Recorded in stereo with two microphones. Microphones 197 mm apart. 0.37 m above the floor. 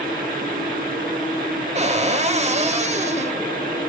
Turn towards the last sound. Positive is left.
turn(degrees=-35)  # may be behind; listen again after turning